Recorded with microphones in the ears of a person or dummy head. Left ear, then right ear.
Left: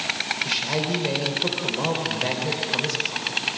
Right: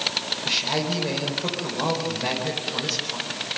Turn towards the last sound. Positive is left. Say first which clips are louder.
# right 1 dB
turn(degrees=0)  # may be behind; listen again after turning